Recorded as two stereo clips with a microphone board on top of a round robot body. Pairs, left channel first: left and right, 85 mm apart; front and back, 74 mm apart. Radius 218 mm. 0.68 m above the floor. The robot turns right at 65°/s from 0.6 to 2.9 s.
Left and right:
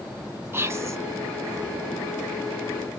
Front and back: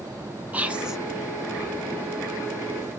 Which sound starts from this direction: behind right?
Whispering, at 0.5 s.